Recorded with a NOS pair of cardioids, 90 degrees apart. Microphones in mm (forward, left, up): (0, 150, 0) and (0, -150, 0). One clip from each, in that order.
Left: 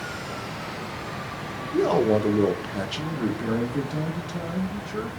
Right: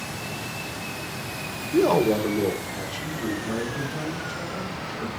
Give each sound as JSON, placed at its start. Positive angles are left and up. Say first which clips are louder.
{"t": 1.7, "sound": "a man speaking", "louder": "right 1 dB", "azimuth_deg": -20, "distance_m": 0.5}